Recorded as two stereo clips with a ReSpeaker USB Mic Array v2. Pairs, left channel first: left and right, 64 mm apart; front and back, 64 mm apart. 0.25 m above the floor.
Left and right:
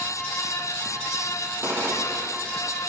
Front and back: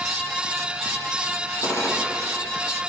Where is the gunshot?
35° right, 3.5 m.